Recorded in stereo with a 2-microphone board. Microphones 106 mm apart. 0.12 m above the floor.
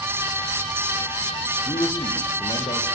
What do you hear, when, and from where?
1.7 s a man speaking: 55° left (ahead or behind), 4.5 m